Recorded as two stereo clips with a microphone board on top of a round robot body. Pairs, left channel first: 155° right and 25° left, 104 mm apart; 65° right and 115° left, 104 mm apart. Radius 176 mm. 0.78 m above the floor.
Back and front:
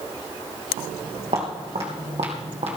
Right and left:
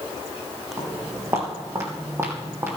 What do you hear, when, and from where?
0.8 s footsteps: 55° left, 3.5 m; by 2.8 s 45° left, 2 m